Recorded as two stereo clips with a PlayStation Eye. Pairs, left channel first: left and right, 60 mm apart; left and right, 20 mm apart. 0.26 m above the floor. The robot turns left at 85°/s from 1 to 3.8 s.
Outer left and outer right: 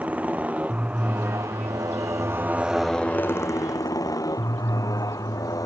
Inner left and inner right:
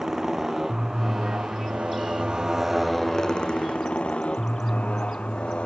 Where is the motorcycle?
25° right; by 5.7 s 100° left.